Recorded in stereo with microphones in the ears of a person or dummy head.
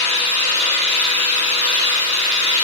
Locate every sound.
0.0 s an engine running: 40° right (ahead or behind), 4.5 m